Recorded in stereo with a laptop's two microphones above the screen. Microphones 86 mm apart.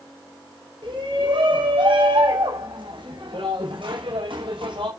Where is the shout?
65° right (ahead or behind), 7 m; by 4.9 s 80° right, 5.5 m.